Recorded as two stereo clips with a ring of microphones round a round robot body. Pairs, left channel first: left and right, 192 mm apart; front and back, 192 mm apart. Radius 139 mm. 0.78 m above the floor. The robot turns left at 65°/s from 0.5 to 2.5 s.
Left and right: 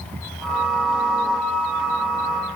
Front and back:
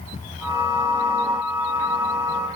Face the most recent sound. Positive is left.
No sound to turn to.